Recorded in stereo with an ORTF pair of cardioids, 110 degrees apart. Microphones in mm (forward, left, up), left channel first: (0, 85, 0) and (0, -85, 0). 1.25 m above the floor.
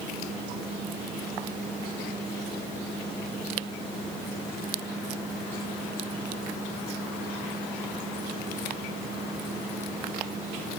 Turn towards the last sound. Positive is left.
No sound to turn to.